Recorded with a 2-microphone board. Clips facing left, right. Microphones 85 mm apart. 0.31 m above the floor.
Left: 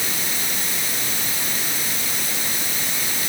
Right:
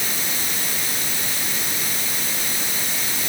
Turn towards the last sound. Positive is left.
No sound to turn to.